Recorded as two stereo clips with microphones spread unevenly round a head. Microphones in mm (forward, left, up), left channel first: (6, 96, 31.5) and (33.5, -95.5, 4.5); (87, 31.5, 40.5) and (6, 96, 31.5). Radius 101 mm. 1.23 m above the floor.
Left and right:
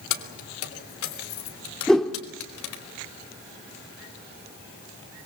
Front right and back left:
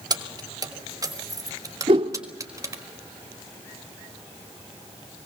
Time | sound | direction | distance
0.1 | keys jangling | 90° left | 2.5 m
1.9 | a whoosh | 175° left | 1.0 m